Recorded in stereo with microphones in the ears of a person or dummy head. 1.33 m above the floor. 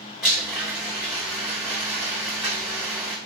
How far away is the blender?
About 1.6 m.